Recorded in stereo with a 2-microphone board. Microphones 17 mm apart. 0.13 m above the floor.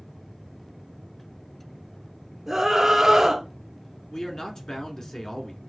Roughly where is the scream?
Centre.